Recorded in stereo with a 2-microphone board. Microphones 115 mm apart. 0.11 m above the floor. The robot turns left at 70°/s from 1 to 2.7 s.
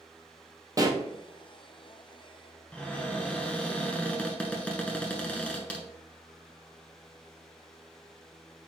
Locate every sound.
0.8 s a pop: 30° right (ahead or behind), 0.9 m
2.7 s a cupboard door: 10° left (ahead or behind), 1.0 m